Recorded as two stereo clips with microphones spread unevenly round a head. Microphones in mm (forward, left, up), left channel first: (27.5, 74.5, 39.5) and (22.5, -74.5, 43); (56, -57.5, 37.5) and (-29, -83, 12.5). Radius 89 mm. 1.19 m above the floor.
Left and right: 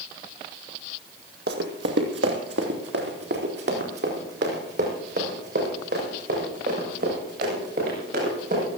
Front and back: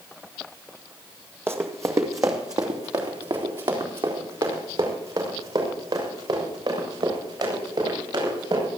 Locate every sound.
1.5 s running footsteps: 95° right, 2 m; by 8.7 s 130° right, 10 m